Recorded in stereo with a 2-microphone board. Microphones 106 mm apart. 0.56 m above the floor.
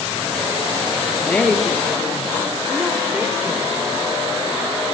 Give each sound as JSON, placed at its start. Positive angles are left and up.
{"t": 1.2, "sound": "a woman speaking", "side_deg": 10, "distance_m": 0.6}